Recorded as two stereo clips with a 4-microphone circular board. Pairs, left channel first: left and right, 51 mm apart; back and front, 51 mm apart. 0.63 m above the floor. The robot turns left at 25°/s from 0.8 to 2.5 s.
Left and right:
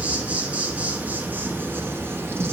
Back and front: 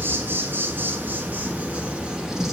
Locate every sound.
0.0 s an insect: 35° right, 0.9 m; by 2.5 s 75° right, 0.9 m